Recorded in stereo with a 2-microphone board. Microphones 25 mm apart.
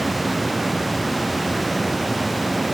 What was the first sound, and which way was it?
Only background noise.